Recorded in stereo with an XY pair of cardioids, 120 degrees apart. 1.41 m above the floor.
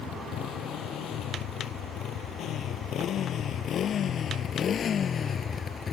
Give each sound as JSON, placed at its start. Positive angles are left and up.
{"t": 0.0, "sound": "a motorcycle", "azimuth_deg": 70}